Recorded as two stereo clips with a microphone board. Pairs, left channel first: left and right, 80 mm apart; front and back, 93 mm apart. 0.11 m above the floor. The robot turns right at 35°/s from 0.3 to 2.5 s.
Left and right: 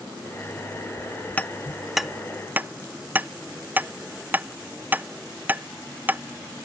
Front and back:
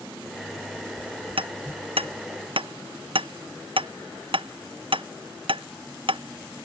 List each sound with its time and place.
1.4 s hammering: 160° left; by 6.7 s 160° right